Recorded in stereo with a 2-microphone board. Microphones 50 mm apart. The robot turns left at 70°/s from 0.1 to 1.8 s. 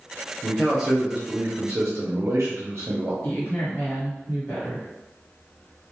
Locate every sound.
0.4 s a man speaking: 25° left, 0.8 m; by 3.1 s 70° right, 0.8 m
3.2 s a woman speaking: 55° left (ahead or behind), 1.5 m